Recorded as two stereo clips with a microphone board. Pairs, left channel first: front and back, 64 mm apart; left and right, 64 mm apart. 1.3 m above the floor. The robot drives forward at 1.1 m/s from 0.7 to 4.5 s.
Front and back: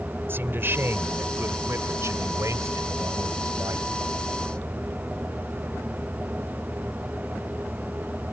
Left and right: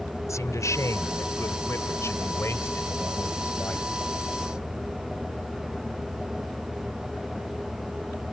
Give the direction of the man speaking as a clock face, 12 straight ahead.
8 o'clock.